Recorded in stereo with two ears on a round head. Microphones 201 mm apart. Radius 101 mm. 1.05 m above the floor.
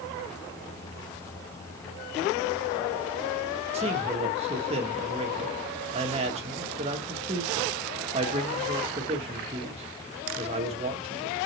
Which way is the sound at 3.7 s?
30° right (ahead or behind).